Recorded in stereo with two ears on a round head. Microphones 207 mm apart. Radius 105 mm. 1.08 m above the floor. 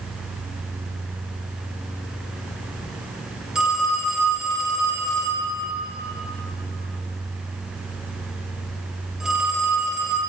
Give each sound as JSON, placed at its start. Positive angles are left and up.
{"t": 3.5, "sound": "a phone ringing", "side_deg": -5, "distance_m": 1.7}